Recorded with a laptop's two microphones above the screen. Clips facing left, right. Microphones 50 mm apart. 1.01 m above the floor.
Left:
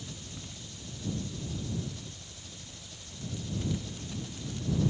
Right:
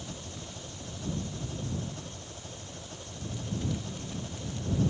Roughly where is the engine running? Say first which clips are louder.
Right 3 dB; right.